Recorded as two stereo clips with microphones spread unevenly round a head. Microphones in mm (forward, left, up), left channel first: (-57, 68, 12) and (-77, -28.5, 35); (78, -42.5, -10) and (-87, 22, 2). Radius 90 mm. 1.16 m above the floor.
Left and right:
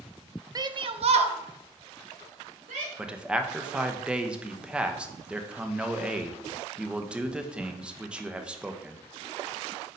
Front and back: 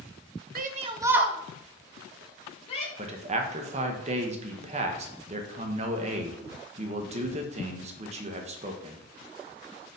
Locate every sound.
0.6 s a shout: 160° right, 0.6 m; by 2.9 s 80° right, 1.5 m
3.0 s a man speaking: 165° left, 0.6 m